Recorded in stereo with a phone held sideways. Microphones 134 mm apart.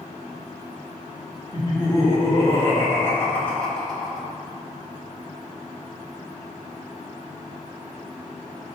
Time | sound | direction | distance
1.5 | laughter | 30° left (ahead or behind) | 3.5 m